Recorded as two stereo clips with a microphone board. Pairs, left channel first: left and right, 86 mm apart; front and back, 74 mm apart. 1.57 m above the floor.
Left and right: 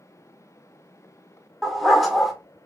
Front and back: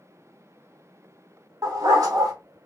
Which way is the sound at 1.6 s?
Straight behind.